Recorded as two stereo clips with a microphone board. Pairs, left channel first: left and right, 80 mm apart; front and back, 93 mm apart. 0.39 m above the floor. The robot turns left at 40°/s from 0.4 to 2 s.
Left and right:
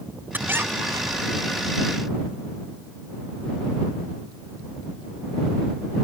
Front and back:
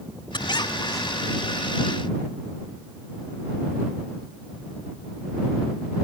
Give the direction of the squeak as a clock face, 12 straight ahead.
1 o'clock.